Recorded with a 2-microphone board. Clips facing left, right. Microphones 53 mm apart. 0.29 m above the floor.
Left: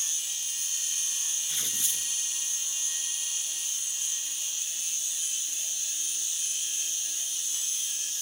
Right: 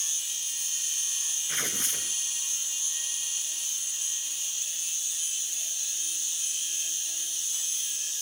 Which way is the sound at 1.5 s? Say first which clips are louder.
Right 6 dB; 50° right (ahead or behind).